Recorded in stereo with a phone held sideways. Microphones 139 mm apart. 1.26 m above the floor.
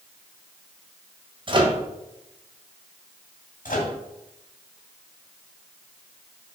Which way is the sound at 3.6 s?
75° left (ahead or behind).